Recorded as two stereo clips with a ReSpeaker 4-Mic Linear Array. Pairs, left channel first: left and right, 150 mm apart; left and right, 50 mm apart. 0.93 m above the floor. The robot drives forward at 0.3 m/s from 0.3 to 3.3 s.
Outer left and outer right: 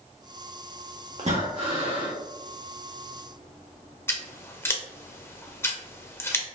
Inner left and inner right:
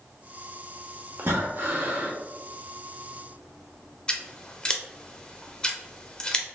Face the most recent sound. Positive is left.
turn(degrees=15)  # may be behind; listen again after turning